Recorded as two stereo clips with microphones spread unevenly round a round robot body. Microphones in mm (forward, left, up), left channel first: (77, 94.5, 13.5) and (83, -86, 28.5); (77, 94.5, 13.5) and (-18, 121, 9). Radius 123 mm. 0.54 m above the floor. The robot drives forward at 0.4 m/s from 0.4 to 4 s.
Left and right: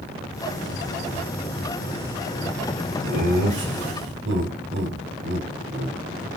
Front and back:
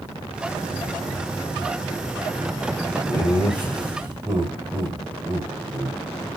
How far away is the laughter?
About 2.5 m.